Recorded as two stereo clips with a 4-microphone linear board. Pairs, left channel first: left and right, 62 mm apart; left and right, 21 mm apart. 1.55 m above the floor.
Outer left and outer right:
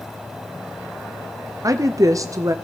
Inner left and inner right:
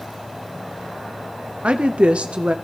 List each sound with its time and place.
1.6 s a woman speaking: 65° right (ahead or behind), 0.6 m